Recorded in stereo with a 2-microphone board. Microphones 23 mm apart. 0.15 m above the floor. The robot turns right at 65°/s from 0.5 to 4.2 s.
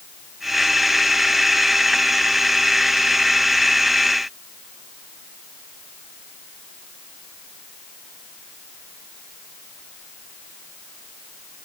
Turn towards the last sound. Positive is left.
No sound to turn to.